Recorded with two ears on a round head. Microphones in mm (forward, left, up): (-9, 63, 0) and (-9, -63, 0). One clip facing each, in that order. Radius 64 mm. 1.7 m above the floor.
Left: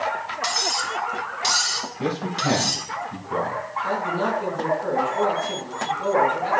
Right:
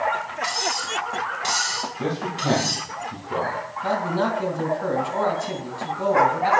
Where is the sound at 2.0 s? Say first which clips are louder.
Left 2 dB; centre (ahead or behind), 2.5 m.